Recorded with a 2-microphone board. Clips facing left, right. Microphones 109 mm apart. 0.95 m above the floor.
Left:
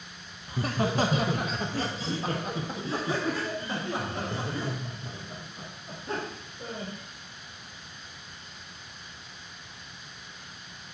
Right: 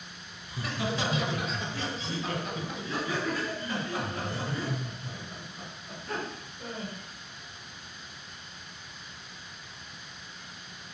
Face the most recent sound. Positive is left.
turn(degrees=25)  # may be behind; listen again after turning